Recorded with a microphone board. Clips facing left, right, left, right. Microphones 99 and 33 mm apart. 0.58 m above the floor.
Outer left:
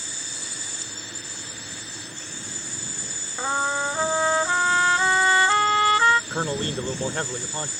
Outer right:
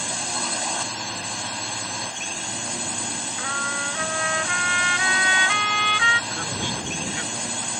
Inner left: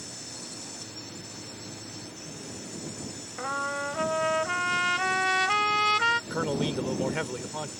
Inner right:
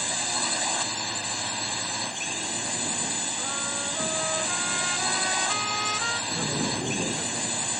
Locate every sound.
0.0 s a drone: 70° right (ahead or behind)
3.4 s a trumpet: 25° left (ahead or behind)
6.3 s a man speaking: 45° left (ahead or behind)